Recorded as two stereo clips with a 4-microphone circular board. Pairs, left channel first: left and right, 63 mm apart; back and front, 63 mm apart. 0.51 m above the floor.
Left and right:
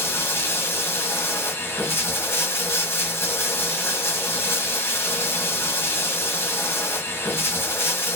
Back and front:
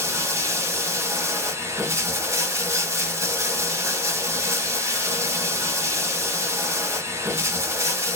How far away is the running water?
About 1.0 m.